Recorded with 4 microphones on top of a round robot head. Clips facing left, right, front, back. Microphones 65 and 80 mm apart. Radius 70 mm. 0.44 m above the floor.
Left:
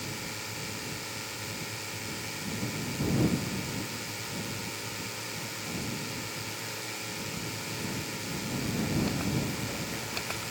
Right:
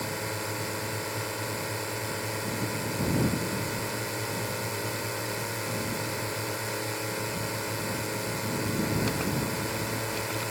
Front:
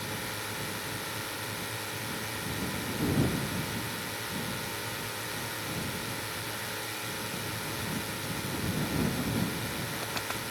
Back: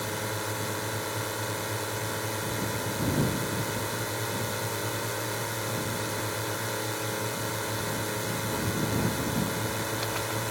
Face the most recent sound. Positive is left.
turn(degrees=-130)